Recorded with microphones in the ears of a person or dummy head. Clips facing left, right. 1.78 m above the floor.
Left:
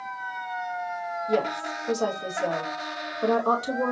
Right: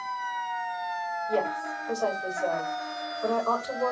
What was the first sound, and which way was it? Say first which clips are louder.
A woman speaking: left 3 dB; 80° left.